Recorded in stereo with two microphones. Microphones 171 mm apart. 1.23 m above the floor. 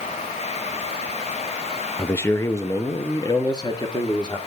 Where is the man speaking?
10° left (ahead or behind), 0.5 m; by 4.4 s 25° left (ahead or behind), 1.7 m.